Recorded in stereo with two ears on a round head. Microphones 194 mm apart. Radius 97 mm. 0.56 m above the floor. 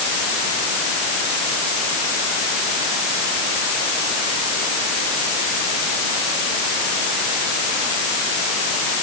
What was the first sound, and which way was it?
Only background noise.